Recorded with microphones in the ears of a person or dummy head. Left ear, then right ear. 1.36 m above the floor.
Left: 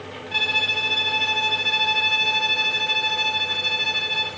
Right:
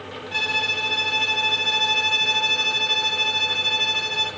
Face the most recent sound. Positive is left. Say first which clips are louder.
# left 2 dB
turn(degrees=-5)  # may be behind; listen again after turning